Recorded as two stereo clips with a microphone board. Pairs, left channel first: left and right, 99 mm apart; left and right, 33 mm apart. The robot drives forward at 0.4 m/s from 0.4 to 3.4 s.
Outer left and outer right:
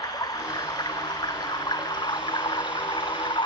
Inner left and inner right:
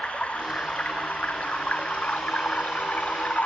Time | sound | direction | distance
0.0 | running water | 40° left (ahead or behind) | ?